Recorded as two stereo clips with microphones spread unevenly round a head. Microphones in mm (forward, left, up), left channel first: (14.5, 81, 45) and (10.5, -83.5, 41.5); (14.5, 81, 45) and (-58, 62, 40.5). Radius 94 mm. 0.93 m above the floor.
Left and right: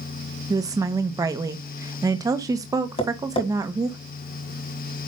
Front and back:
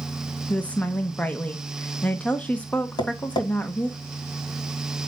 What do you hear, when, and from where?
0.5 s a woman speaking: 45° right, 0.7 m
3.0 s tapping: 30° left, 2 m